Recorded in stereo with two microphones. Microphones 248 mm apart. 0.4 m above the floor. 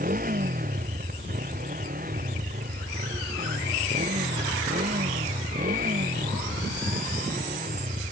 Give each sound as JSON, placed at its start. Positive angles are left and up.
{"t": 0.0, "sound": "a motorcycle", "side_deg": -35}